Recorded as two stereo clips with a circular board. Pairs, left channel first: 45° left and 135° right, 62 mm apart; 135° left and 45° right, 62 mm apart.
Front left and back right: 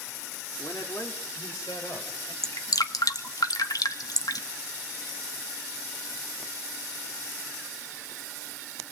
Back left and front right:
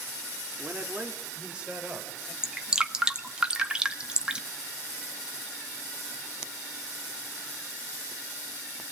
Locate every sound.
0.6 s a man speaking: 15° left, 2.5 m; by 2.3 s 30° left, 4.5 m
2.4 s dripping: 30° left, 1.5 m